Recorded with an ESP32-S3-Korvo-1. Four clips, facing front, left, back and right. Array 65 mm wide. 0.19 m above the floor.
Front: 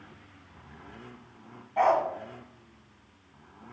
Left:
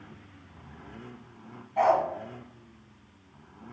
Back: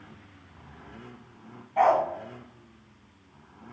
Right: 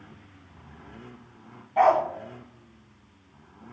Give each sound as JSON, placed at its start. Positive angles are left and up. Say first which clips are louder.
{"t": 1.8, "sound": "a dog barking", "louder": "right 3 dB, back 2 dB", "azimuth_deg": -100, "distance_m": 0.6}